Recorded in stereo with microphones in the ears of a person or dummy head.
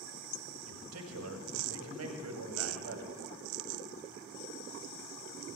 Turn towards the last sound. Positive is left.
turn(degrees=-80)